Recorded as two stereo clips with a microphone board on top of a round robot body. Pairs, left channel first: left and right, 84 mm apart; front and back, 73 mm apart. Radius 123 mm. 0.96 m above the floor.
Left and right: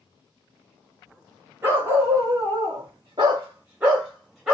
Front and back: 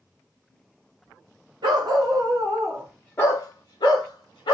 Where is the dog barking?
155° right, 1.0 m; by 4.5 s straight ahead, 1.1 m.